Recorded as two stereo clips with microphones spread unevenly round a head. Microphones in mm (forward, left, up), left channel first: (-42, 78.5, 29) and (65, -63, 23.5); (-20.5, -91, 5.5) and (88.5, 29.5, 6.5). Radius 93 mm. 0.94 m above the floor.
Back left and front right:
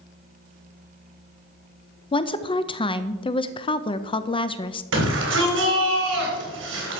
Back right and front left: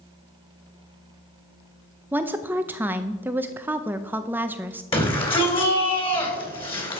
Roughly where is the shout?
Right.